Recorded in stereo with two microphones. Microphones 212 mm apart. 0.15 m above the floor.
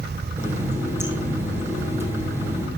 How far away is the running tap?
About 3 m.